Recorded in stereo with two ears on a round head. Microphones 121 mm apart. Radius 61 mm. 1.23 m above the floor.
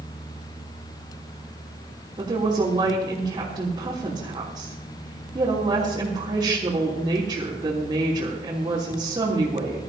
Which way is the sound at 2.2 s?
30° right (ahead or behind).